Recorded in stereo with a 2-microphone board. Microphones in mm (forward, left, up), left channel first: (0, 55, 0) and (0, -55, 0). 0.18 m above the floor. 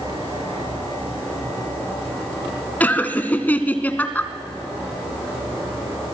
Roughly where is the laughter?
Centre.